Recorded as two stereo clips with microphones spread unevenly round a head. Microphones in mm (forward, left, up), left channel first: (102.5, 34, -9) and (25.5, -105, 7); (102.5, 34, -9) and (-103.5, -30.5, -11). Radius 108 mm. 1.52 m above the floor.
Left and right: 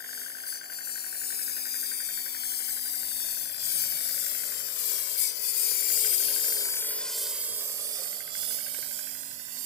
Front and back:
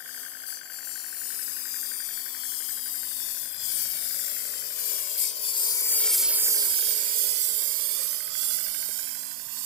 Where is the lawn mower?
35° left; by 9.7 s 170° right.